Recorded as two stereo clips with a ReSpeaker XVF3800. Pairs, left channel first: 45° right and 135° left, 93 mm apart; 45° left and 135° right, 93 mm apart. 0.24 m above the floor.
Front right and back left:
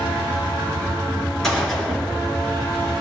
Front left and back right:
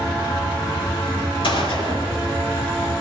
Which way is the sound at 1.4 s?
40° left.